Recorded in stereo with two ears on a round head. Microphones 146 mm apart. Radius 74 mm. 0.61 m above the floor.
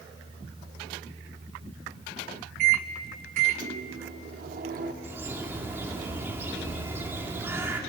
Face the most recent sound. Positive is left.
turn(degrees=-15)  # may be behind; listen again after turning